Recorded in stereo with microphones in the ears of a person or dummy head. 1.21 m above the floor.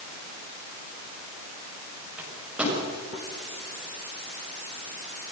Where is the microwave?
10° right (ahead or behind), 6.5 m.